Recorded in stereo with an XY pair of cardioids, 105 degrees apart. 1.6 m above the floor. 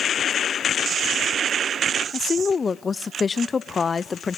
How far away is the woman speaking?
About 0.5 m.